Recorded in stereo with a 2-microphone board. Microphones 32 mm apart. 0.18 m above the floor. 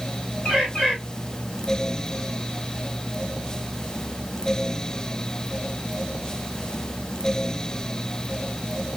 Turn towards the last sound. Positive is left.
turn(degrees=35)  # may be behind; listen again after turning